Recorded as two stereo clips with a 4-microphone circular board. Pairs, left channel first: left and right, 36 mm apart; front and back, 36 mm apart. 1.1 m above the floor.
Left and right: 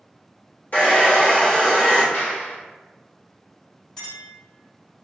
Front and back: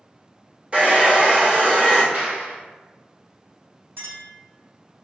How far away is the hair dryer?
About 1.4 m.